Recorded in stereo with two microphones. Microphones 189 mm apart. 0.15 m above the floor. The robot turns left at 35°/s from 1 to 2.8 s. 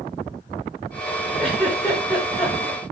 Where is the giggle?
Centre (ahead or behind), 7 m; by 2.8 s 45° left (ahead or behind), 7 m.